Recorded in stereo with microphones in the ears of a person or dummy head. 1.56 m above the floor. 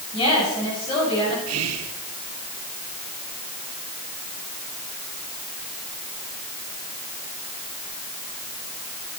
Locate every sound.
0.1 s a woman speaking: 25° left (ahead or behind), 8.5 m
1.5 s whispering: 80° right, 1.3 m